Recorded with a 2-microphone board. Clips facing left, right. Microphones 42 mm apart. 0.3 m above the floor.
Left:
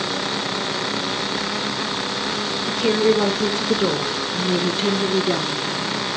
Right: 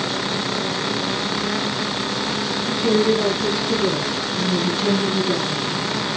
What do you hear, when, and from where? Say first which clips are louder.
2.7 s a woman speaking: even; 60° left (ahead or behind), 2.5 m; by 6.0 s 15° left (ahead or behind), 3.5 m